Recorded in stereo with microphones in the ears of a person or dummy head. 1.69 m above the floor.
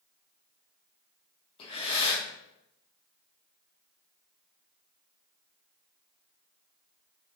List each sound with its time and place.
1.6 s breathing: 40° left (ahead or behind), 3 m